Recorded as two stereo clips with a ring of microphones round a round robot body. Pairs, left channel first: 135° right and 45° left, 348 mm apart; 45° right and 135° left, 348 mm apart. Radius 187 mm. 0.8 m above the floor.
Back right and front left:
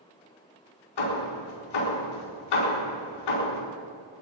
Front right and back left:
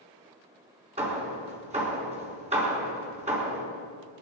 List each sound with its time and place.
1.0 s hammering: 155° right, 4 m